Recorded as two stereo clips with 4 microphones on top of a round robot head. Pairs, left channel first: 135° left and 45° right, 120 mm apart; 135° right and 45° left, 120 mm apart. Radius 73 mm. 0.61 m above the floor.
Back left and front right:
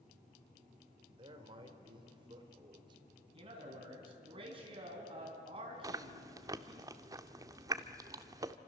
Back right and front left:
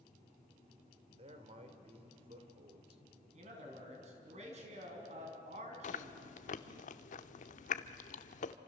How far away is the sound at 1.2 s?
About 3 m.